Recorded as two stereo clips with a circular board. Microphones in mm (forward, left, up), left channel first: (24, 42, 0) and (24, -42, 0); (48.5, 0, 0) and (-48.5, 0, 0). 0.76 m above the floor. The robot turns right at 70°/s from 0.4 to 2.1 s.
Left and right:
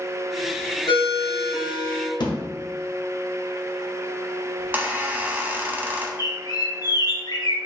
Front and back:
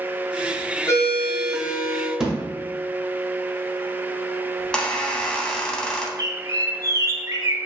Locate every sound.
0.9 s a ringtone: 55° left, 0.7 m; by 2.1 s 145° left, 0.7 m
2.2 s a thud: 95° left, 0.8 m
4.6 s a squeak: 70° right, 0.6 m
6.2 s a bird: 125° left, 0.5 m